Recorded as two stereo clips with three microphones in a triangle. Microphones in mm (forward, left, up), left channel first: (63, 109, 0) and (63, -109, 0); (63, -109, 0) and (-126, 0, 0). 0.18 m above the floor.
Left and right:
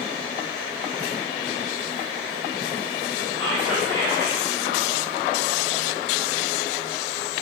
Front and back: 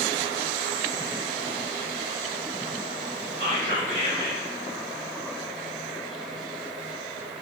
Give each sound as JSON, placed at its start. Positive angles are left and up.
{"t": 3.4, "sound": "whispering", "azimuth_deg": 160, "distance_m": 1.9}